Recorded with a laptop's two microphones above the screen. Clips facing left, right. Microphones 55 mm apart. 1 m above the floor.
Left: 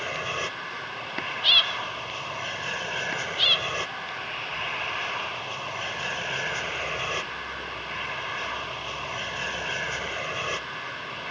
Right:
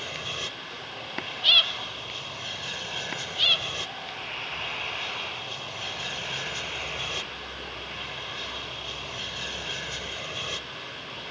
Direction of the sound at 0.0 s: 35° left (ahead or behind).